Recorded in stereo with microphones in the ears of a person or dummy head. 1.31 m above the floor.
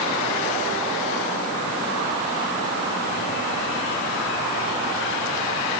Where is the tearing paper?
No tearing paper in this recording.